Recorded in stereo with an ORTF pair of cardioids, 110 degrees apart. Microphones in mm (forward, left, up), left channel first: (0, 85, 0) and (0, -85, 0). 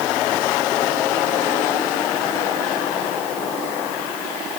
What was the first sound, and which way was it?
Only background noise.